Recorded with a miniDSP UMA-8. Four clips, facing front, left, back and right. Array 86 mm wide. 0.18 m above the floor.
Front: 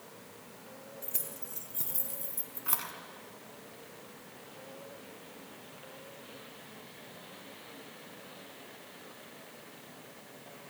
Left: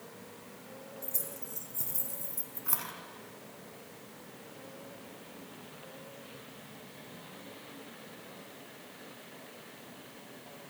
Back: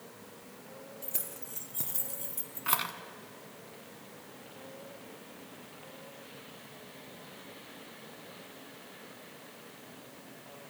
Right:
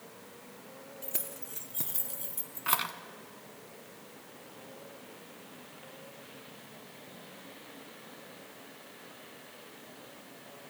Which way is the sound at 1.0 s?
90° right.